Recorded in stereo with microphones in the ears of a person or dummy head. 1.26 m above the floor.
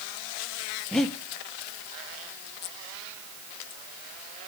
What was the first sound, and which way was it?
Breathing, centre (ahead or behind).